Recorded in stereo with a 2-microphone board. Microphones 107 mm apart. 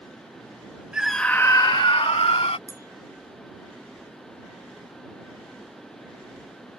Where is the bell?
30° right (ahead or behind).